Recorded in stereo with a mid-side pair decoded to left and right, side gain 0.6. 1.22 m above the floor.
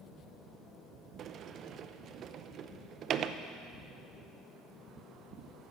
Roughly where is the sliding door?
Ahead right.